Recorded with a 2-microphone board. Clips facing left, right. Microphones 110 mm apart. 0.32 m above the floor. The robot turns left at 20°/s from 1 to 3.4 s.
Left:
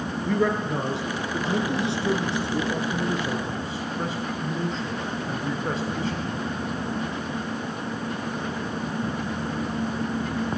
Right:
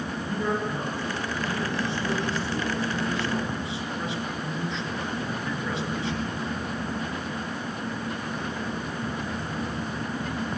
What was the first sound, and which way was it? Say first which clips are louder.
A man speaking: left 5 dB; 75° left (ahead or behind).